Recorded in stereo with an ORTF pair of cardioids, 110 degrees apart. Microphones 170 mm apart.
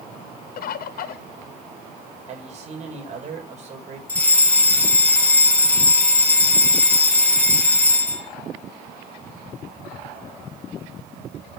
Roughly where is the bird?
Ahead left.